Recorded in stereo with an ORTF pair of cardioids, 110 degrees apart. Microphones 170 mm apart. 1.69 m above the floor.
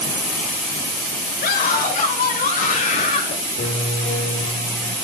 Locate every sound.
1.4 s a scream: 60° left, 8 m; by 3.4 s 45° left, 8.5 m
3.6 s a piano: 50° left, 6.5 m